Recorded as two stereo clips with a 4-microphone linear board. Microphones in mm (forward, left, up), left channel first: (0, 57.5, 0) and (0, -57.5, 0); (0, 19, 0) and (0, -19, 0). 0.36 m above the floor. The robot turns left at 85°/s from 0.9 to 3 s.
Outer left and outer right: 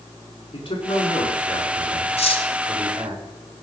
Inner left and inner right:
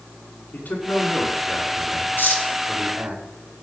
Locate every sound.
0.5 s a man speaking: 130° left, 4.5 m; by 3.2 s 50° right, 4.5 m
2.2 s cutlery clinking: 65° left (ahead or behind), 2 m; by 2.4 s 45° left (ahead or behind), 2 m